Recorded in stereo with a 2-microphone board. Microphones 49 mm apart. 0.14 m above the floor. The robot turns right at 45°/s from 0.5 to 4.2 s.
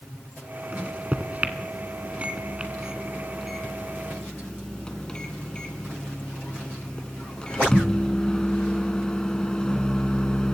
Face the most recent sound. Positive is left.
turn(degrees=20)  # may be behind; listen again after turning